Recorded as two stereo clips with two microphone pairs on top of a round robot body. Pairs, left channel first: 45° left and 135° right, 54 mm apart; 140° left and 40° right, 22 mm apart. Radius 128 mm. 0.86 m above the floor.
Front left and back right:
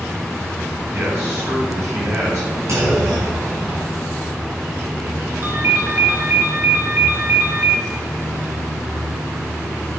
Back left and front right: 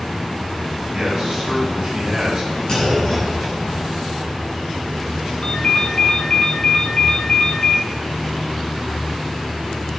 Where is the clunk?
165° right, 7 m.